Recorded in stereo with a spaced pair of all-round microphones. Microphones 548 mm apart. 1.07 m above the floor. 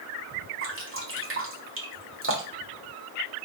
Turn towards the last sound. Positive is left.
turn(degrees=-25)  # may be behind; listen again after turning